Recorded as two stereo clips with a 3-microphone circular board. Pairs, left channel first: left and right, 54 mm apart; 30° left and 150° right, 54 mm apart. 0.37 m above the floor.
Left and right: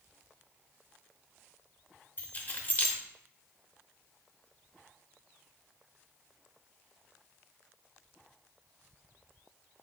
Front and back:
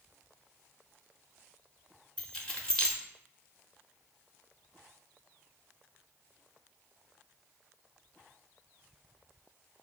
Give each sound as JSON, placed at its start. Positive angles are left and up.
{"t": 2.2, "sound": "keys jangling", "azimuth_deg": 90, "distance_m": 0.8}